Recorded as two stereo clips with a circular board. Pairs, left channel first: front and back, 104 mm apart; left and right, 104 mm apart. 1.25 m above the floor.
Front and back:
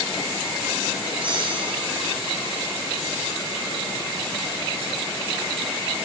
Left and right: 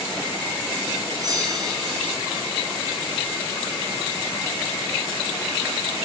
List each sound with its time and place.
1.2 s a bell: 145° right, 9 m